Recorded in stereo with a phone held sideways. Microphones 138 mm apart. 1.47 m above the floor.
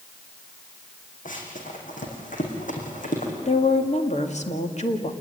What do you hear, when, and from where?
1.2 s running footsteps: 70° left (ahead or behind), 4.5 m; by 3.3 s 65° left (ahead or behind), 5 m
3.5 s a woman speaking: 55° left (ahead or behind), 2 m